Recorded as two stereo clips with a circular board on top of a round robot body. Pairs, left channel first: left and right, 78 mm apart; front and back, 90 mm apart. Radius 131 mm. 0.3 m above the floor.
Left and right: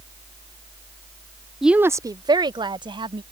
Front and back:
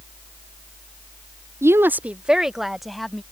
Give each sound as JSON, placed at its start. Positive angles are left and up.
{"t": 1.6, "sound": "a woman speaking", "azimuth_deg": -175}